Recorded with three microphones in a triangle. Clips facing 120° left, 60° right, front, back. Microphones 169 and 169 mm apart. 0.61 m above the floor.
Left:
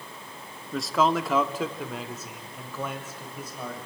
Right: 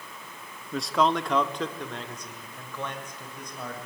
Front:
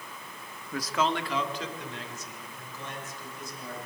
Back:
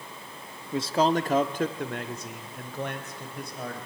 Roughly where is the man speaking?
Behind right.